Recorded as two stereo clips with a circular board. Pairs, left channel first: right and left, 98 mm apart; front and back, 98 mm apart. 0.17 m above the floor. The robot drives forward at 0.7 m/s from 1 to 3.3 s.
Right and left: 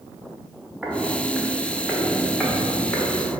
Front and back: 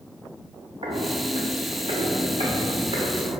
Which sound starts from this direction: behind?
Footsteps, at 0.8 s.